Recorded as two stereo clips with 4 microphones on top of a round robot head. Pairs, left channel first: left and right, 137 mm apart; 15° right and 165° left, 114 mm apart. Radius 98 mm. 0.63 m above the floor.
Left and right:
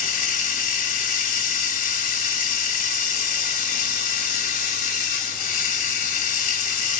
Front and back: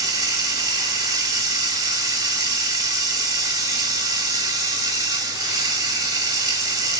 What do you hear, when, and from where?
0.0 s running water: 105° left, 2.5 m